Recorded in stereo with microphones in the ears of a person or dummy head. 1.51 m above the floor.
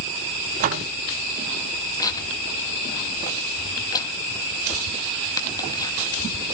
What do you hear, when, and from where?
0.6 s a door slam: 45° right (ahead or behind), 1.1 m
2.0 s tearing paper: 25° left (ahead or behind), 2.5 m